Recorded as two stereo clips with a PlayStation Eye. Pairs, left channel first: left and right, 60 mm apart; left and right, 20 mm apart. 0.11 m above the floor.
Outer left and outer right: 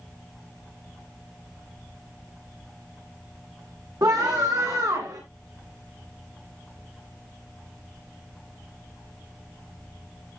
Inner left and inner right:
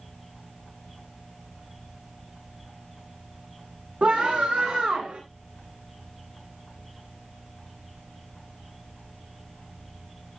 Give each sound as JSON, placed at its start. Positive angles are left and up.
{"t": 4.0, "sound": "a scream", "side_deg": -80, "distance_m": 6.5}